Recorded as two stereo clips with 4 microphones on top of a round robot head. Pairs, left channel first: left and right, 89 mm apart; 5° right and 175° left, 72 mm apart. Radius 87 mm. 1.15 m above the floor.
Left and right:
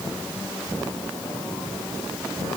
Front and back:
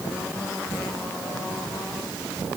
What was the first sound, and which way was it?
Only background noise.